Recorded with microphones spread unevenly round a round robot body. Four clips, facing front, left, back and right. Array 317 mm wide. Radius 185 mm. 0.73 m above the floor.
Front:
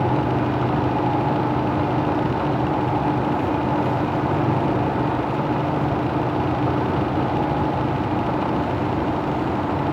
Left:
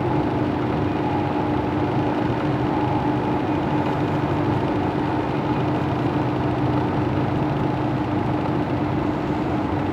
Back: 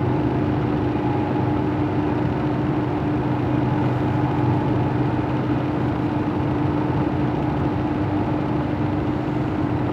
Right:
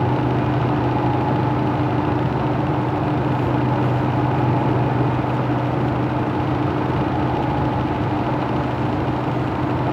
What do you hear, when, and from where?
Only background noise.